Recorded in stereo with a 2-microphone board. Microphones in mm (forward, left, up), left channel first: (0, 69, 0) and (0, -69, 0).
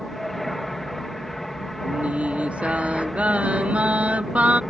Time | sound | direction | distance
0.0 | an aircraft | centre (ahead or behind) | ?
1.8 | singing | 10° right (ahead or behind) | ?